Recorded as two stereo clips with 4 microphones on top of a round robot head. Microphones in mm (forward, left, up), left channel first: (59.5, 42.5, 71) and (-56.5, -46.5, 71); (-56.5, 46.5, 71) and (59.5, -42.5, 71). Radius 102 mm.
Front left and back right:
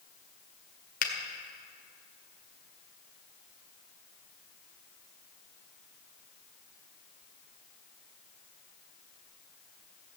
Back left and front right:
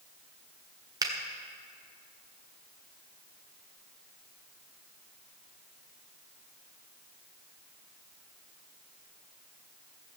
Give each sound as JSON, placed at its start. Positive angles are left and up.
{"t": 1.0, "sound": "a finger snap", "azimuth_deg": 25, "distance_m": 1.8}